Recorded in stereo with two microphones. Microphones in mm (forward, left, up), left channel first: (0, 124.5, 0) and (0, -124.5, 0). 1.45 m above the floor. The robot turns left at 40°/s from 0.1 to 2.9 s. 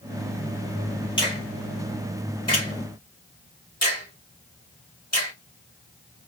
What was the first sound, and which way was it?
A finger snap, 20° left (ahead or behind).